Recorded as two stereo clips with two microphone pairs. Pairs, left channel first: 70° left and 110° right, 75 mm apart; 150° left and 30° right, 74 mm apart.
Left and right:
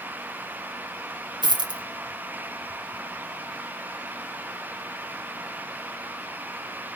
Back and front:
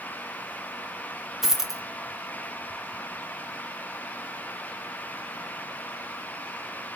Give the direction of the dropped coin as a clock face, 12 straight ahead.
4 o'clock.